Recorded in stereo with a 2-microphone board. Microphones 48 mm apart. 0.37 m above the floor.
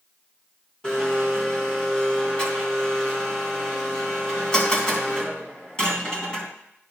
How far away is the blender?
About 3 m.